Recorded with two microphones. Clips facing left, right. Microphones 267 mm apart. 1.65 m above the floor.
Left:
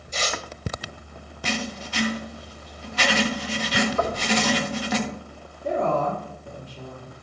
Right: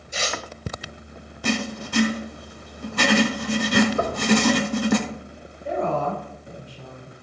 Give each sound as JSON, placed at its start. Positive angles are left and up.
{"t": 0.1, "sound": "tearing paper", "side_deg": -10, "distance_m": 2.0}
{"t": 1.4, "sound": "writing", "side_deg": -55, "distance_m": 1.3}
{"t": 4.0, "sound": "knocking", "side_deg": -25, "distance_m": 2.0}
{"t": 5.6, "sound": "a woman speaking", "side_deg": 75, "distance_m": 4.0}